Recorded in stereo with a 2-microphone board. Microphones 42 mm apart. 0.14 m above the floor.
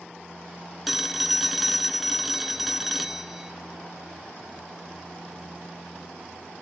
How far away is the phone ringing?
About 0.9 m.